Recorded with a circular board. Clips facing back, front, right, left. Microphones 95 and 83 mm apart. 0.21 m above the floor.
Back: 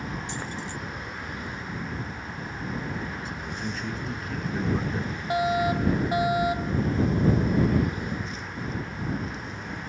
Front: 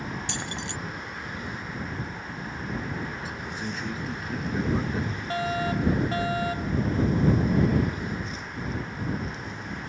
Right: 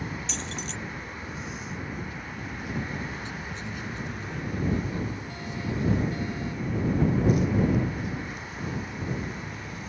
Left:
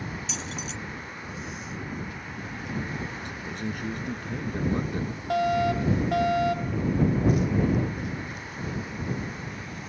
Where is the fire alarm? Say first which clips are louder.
Back 4 dB, left 10 dB; 105° left.